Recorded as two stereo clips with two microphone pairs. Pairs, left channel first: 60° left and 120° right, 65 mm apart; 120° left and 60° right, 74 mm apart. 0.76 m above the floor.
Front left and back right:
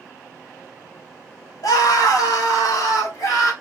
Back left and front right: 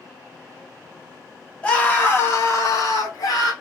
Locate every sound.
1.6 s a scream: 50° left, 1.3 m; by 3.5 s 90° left, 2 m